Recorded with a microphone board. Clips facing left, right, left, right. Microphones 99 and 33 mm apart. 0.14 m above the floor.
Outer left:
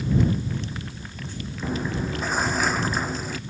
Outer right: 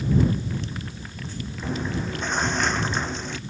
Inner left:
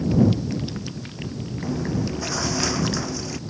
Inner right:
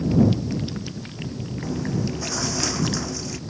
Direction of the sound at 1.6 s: 5° left (ahead or behind).